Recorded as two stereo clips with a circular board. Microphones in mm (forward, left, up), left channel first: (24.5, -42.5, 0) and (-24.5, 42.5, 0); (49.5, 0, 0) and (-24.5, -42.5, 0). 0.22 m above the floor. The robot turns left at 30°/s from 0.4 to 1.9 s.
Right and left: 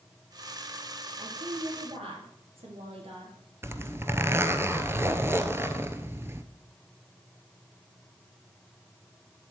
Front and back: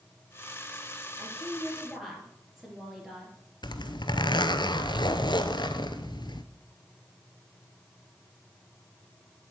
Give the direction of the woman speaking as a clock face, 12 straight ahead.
7 o'clock.